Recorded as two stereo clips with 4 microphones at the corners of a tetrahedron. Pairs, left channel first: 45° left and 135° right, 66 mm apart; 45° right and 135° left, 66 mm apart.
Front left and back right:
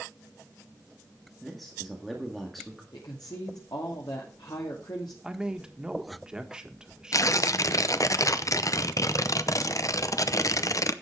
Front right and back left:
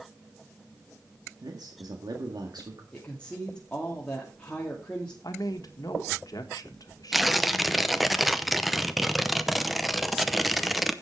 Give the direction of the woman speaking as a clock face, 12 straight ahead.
11 o'clock.